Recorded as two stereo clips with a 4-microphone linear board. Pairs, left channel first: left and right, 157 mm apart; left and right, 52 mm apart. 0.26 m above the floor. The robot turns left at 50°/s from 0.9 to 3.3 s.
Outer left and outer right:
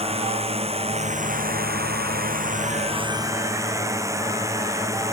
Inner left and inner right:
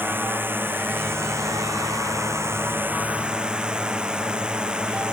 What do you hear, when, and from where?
0.0 s a drone: 40° right; by 5.1 s 160° right